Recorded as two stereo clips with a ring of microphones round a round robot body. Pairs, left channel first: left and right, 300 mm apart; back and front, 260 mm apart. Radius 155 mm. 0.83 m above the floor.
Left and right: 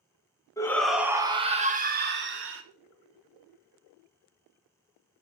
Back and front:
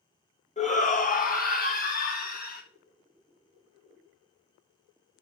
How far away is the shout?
About 0.9 m.